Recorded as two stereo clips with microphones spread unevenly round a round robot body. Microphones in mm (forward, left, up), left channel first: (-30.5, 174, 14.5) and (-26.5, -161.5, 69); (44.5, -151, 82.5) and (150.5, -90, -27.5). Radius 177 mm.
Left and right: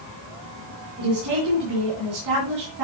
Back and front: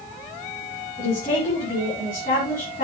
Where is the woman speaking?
125° right, 3.5 m.